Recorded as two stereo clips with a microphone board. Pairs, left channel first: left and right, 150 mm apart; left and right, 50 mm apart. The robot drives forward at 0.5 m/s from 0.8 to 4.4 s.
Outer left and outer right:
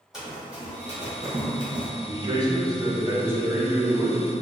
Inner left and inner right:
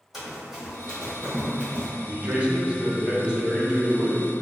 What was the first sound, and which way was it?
Running footsteps, 5° right (ahead or behind).